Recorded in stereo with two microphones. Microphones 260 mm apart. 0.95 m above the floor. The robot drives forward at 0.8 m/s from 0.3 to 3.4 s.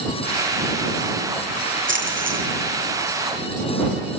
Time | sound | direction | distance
1.9 | a splash | 45° right (ahead or behind) | 5.5 m